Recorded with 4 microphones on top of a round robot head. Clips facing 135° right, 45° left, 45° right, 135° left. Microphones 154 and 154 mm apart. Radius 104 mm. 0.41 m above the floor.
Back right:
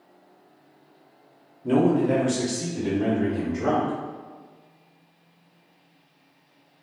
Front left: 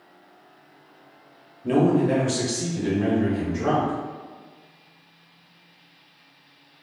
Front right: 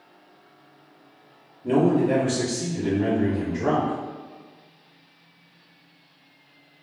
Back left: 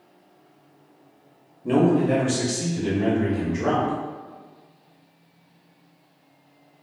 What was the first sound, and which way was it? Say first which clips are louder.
A man speaking: front left 1 dB, back left 1 dB; 20° right.